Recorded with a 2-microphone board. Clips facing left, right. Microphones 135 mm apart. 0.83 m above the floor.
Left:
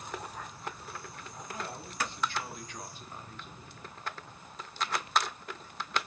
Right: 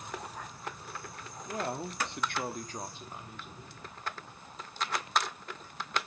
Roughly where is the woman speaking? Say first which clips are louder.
Right 7 dB; right.